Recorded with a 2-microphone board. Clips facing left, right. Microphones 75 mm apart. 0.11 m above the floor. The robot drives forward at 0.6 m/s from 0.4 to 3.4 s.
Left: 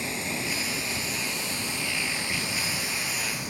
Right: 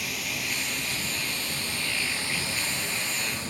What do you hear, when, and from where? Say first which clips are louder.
0.0 s running water: left 2 dB; 30° left (ahead or behind), 1.6 m; by 3.5 s 15° left (ahead or behind), 3 m